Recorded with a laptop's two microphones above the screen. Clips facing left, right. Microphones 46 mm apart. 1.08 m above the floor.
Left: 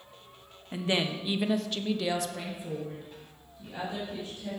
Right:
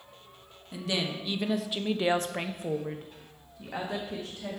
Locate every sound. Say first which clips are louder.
0.7 s a woman speaking: left 3 dB; 30° left (ahead or behind), 1.1 m; by 4.6 s 85° right, 2 m